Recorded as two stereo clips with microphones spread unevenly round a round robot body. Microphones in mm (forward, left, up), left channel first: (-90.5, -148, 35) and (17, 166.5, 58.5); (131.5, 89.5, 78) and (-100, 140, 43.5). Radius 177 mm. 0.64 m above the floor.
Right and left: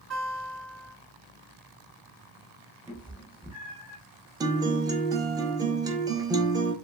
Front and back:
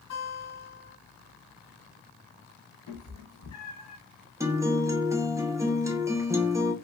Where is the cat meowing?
10° right, 0.9 m.